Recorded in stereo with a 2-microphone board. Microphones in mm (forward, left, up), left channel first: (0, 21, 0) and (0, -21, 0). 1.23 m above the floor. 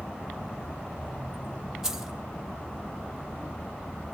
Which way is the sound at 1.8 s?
10° right (ahead or behind).